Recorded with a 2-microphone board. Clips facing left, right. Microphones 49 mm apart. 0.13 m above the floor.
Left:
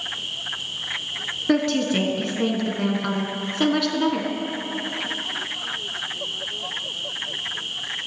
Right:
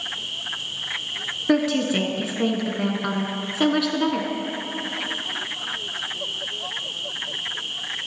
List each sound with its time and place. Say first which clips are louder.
1.5 s a woman speaking: even; 5° right (ahead or behind), 1.1 m